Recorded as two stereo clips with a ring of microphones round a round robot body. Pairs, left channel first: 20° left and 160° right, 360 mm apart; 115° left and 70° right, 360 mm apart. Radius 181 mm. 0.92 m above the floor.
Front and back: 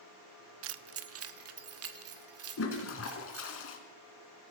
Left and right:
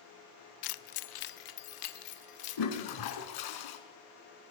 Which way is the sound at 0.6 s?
145° left.